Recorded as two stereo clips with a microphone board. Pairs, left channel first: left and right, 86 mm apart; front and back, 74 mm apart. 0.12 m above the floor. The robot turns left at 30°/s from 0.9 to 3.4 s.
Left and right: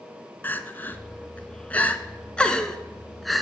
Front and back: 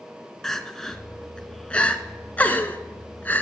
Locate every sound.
0.4 s crying: 70° left, 0.8 m; by 3.4 s 5° right, 0.8 m